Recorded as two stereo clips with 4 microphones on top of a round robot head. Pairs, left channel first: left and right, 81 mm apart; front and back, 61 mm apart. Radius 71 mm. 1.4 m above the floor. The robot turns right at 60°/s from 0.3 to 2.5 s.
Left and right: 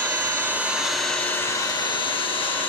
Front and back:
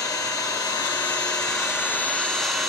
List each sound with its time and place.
0.0 s an engine running: 40° right, 2.0 m; by 2.7 s 95° left, 2.0 m